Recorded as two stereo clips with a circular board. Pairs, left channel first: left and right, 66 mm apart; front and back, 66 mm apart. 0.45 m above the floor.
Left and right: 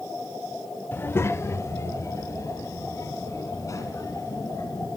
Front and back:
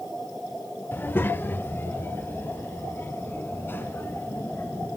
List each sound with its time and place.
0.9 s a child speaking: 45° left, 0.7 m; by 5.0 s 55° left, 4 m